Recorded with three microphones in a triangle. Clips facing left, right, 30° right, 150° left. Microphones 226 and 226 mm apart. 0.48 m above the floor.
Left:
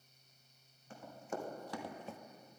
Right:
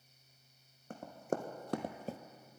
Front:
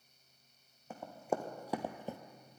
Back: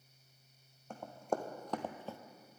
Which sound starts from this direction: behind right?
Running footsteps, at 0.9 s.